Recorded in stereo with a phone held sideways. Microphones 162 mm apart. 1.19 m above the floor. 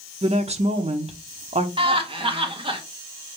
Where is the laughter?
35° right (ahead or behind), 1.2 m.